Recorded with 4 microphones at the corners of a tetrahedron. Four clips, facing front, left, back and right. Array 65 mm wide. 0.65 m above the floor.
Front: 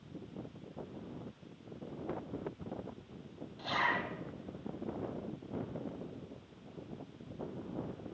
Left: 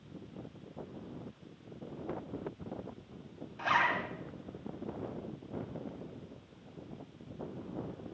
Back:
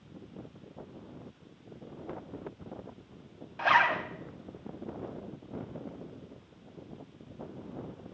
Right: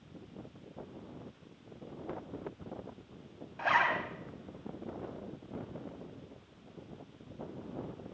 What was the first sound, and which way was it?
A zipper, 165° right.